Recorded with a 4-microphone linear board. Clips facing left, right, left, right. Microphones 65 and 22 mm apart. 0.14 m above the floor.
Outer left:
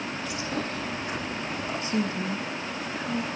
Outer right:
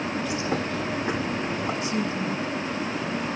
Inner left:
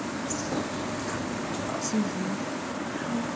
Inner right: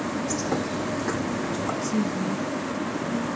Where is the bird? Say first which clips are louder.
Outer right 4 dB, inner right 4 dB; 30° right (ahead or behind), 8.5 m.